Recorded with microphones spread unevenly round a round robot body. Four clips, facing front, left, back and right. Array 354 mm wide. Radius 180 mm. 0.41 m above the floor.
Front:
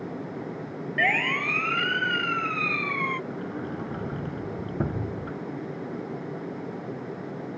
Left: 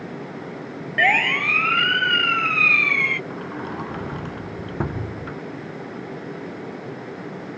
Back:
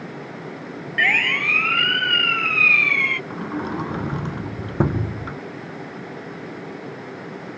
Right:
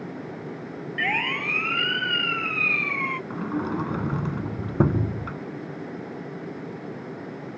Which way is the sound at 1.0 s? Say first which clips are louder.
Left 8 dB, back 3 dB; 60° left.